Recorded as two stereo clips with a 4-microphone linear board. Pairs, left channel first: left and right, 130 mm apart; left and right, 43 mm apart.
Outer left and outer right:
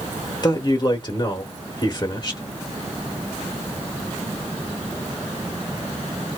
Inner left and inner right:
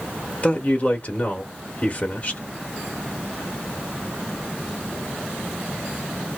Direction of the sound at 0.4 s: 35° left (ahead or behind).